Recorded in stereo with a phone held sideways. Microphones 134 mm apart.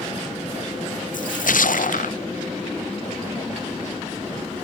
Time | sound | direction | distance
1.1 | a splash | 85° left | ?